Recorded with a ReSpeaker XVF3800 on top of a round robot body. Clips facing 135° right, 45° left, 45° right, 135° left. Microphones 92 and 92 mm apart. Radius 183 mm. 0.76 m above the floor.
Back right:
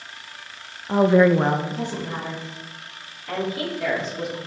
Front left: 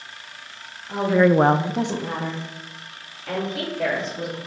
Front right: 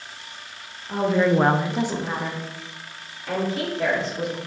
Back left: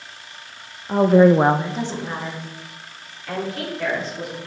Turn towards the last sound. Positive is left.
turn(degrees=20)